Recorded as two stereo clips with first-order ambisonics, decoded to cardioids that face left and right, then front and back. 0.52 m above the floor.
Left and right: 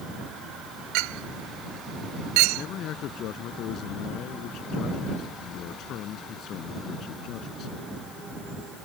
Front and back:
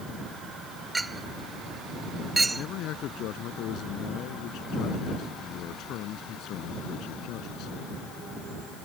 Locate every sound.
0.9 s a clink: 100° right
2.5 s a man speaking: 45° left